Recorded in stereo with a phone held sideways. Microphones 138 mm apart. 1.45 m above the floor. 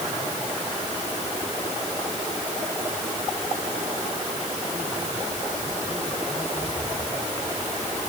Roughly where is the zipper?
No zipper in this recording.